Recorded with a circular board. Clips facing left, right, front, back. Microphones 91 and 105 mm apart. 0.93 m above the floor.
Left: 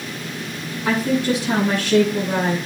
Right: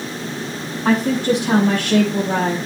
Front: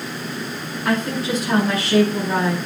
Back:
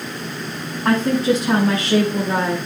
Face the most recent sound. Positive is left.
turn(degrees=-105)